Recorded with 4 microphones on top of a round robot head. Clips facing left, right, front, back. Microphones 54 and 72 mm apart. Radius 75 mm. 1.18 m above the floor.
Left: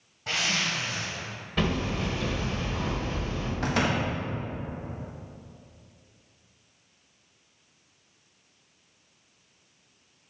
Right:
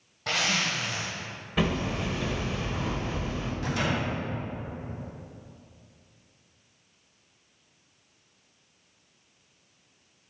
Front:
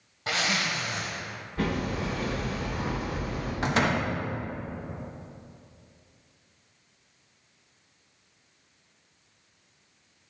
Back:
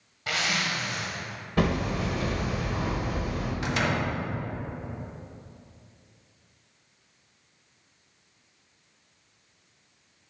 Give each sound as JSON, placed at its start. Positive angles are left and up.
{"t": 0.3, "sound": "a zipper", "azimuth_deg": -60, "distance_m": 1.1}
{"t": 1.6, "sound": "hammering", "azimuth_deg": -170, "distance_m": 2.0}
{"t": 3.6, "sound": "a door slam", "azimuth_deg": 50, "distance_m": 1.3}